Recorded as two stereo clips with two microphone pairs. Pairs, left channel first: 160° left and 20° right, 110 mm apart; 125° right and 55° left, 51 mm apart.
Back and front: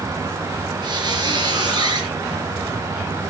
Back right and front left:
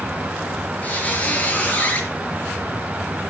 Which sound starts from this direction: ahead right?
A squeak, at 0.8 s.